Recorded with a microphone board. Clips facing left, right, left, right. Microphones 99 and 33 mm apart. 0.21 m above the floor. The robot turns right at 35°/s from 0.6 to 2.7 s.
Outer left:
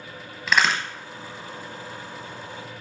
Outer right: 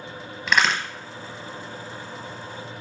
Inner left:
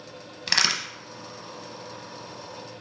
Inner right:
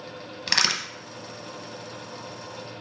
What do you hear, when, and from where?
0.5 s a crack: centre (ahead or behind), 0.7 m; by 0.8 s 5° left (ahead or behind), 0.7 m